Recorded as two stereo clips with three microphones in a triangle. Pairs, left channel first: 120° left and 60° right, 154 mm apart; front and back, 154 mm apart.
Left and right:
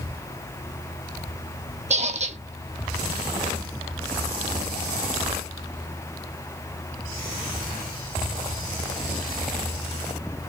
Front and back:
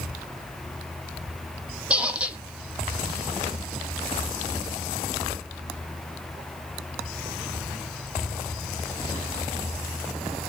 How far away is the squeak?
About 0.8 m.